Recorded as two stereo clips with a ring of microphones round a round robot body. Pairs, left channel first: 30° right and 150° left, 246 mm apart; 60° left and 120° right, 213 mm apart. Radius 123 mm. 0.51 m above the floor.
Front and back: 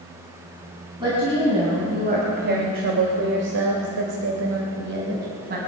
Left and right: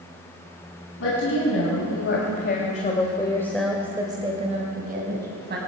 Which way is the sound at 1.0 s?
80° left.